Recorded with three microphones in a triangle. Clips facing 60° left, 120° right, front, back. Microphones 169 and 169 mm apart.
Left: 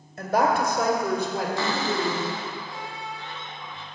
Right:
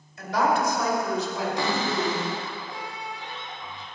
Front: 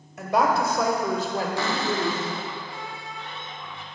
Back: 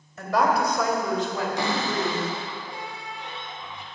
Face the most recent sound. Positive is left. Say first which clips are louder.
# even, even
turn(degrees=-150)